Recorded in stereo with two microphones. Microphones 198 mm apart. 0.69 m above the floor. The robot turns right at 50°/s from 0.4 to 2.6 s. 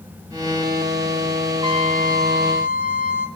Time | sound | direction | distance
1.6 | a trumpet | 160° right | 4.5 m